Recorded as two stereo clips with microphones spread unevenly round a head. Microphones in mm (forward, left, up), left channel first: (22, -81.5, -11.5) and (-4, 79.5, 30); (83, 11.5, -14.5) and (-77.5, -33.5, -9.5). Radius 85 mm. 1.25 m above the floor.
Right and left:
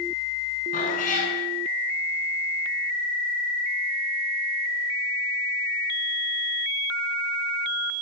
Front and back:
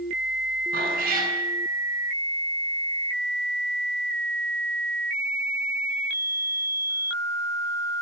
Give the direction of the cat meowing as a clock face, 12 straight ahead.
4 o'clock.